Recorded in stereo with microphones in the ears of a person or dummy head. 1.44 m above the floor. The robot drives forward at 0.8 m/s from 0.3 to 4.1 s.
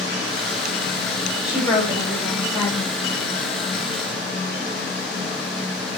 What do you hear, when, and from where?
1.4 s a woman speaking: 20° left (ahead or behind), 4 m; by 2.9 s 30° left (ahead or behind), 3 m